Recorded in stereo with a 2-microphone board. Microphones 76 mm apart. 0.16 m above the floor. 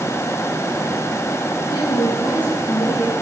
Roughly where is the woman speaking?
Left.